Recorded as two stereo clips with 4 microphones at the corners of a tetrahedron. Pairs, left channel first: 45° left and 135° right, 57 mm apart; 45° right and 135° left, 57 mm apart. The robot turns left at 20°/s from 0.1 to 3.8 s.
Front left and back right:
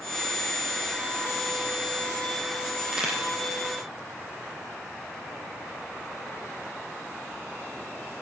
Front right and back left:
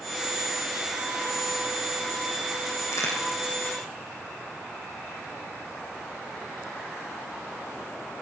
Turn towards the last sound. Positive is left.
turn(degrees=-75)